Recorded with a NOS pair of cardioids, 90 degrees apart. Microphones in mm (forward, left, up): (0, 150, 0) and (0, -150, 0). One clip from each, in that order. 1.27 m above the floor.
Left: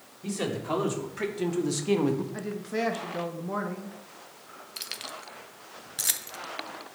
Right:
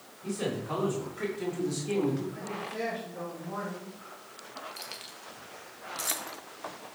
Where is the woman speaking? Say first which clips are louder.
Left 4 dB; 65° left, 1.4 m.